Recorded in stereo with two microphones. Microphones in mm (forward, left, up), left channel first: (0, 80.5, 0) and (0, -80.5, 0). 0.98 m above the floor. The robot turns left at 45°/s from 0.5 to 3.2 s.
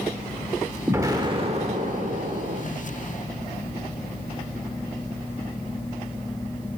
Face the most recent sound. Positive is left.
turn(degrees=-120)